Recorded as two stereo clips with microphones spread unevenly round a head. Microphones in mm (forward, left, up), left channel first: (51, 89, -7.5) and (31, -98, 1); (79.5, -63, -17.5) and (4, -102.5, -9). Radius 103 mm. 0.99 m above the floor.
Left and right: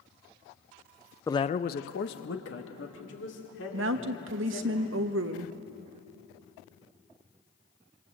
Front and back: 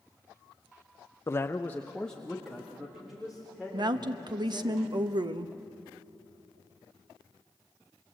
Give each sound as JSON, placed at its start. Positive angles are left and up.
{"t": 1.3, "sound": "a man speaking", "azimuth_deg": 25, "distance_m": 0.6}
{"t": 3.7, "sound": "a woman speaking", "azimuth_deg": -120, "distance_m": 1.0}